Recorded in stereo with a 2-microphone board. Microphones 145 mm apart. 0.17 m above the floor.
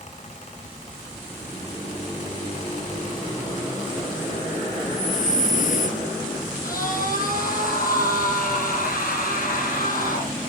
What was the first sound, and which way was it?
Breathing, 60° left (ahead or behind).